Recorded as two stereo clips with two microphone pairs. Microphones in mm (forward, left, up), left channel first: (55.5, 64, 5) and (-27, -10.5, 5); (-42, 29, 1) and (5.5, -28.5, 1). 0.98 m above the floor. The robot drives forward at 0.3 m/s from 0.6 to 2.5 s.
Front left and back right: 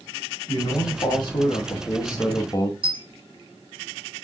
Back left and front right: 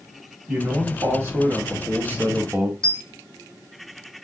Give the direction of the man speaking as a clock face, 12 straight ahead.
12 o'clock.